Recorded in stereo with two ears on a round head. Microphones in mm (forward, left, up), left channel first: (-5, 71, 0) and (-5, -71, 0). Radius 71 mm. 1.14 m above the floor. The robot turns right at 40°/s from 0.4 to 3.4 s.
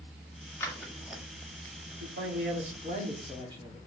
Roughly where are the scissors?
Centre.